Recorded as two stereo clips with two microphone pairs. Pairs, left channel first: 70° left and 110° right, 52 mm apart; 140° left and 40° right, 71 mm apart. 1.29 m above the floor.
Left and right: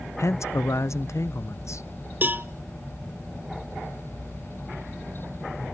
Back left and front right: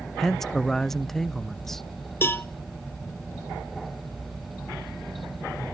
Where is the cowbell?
165° right, 0.6 m.